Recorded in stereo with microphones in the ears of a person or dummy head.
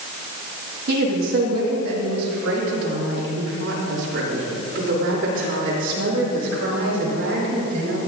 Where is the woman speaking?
60° right (ahead or behind), 1.4 m.